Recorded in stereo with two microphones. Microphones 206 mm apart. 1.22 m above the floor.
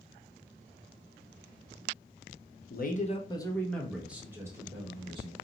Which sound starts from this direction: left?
A man speaking, at 2.7 s.